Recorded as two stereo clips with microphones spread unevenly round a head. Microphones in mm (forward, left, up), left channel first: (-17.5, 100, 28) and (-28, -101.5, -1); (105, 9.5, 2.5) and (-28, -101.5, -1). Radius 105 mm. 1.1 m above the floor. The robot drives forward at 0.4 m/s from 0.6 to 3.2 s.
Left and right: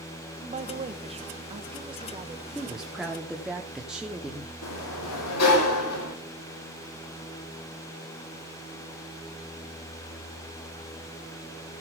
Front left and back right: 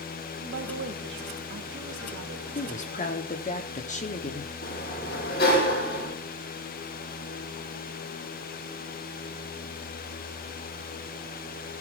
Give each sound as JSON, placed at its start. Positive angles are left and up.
{"t": 0.4, "sound": "a woman speaking", "azimuth_deg": -140, "distance_m": 1.3}
{"t": 2.5, "sound": "a woman speaking", "azimuth_deg": -5, "distance_m": 3.0}
{"t": 4.6, "sound": "a sliding door", "azimuth_deg": 90, "distance_m": 3.5}